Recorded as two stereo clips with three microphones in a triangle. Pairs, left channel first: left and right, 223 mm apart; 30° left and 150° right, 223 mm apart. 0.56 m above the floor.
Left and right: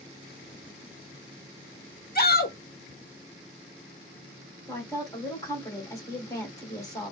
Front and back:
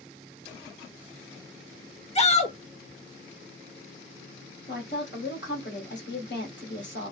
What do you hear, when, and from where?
2.1 s a shout: 75° left, 0.9 m
4.7 s a woman speaking: 20° left, 1.9 m